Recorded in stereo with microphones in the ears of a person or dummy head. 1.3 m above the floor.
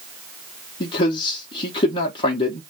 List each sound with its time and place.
0.8 s a man speaking: 30° left (ahead or behind), 0.6 m